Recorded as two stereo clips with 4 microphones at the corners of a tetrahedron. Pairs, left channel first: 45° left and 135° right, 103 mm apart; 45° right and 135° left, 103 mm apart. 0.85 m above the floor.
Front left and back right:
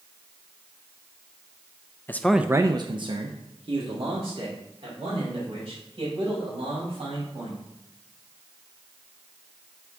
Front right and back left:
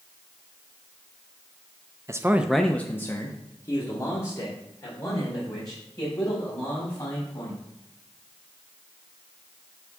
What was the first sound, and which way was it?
A man speaking, 100° left.